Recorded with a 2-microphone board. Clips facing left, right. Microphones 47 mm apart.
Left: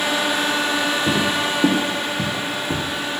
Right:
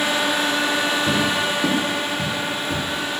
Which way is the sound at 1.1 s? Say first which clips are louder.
Even; 20° left (ahead or behind).